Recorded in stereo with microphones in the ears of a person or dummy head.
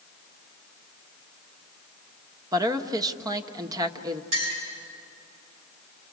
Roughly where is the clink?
Right.